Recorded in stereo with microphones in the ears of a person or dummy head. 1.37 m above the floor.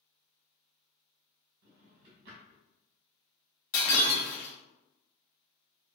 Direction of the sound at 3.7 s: 60° left (ahead or behind).